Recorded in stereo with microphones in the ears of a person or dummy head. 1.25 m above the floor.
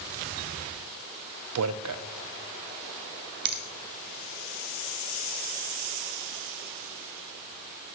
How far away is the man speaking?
About 0.5 m.